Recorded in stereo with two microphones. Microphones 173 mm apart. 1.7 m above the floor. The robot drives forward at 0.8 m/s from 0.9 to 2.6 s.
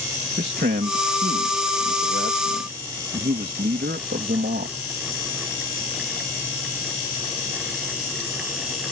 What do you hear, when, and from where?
0.4 s a man speaking: 80° right; by 4.8 s 75° right (ahead or behind)